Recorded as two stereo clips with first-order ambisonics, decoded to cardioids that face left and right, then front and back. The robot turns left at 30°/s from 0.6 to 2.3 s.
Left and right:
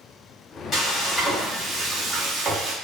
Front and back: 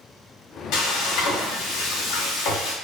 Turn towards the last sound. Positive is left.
turn(degrees=-25)